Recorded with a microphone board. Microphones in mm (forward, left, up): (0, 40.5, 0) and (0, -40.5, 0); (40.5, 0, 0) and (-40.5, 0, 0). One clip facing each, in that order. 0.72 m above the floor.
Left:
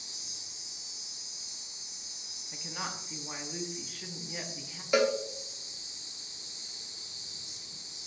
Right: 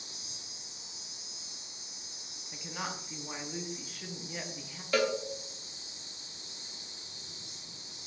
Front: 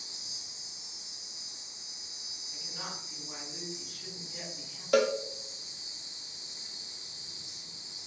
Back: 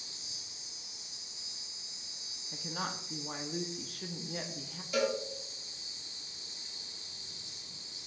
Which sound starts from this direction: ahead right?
An insect, at 0.0 s.